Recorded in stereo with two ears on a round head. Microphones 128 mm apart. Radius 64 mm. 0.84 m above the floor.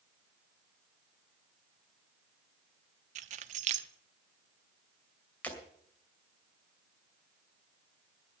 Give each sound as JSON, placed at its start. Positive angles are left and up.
{"t": 3.1, "sound": "keys jangling", "side_deg": -50, "distance_m": 0.8}
{"t": 5.4, "sound": "breaking glass", "side_deg": 10, "distance_m": 2.5}